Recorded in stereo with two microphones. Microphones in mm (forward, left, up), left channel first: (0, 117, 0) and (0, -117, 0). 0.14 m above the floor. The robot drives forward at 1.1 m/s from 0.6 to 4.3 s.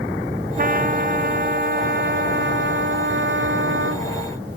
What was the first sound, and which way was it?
A trumpet, 35° right (ahead or behind).